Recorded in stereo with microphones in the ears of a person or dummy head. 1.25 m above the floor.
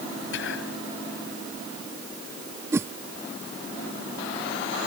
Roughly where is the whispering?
Left.